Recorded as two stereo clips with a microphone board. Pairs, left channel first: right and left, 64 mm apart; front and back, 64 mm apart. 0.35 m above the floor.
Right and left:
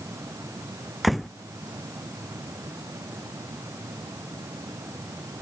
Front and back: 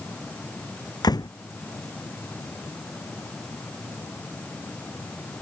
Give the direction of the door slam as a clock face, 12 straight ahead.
12 o'clock.